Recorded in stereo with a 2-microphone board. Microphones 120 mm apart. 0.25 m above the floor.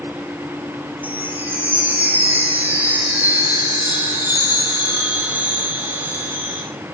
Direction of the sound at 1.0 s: 15° right (ahead or behind).